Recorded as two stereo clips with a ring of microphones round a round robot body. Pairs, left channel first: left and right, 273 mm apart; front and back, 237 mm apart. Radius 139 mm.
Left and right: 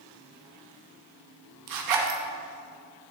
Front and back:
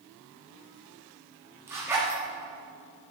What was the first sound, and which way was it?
A zipper, 100° right.